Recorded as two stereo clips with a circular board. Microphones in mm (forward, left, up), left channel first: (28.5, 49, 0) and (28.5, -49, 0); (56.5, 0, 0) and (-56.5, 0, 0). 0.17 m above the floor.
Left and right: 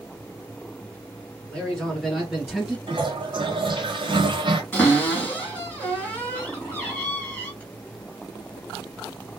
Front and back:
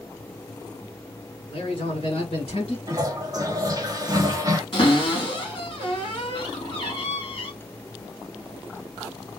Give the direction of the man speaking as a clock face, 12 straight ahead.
12 o'clock.